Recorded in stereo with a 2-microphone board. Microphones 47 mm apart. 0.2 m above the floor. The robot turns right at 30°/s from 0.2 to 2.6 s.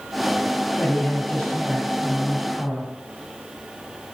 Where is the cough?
I don't hear a cough.